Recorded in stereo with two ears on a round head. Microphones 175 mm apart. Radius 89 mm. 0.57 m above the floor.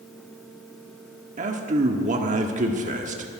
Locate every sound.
1.4 s a man speaking: 40° right (ahead or behind), 1.2 m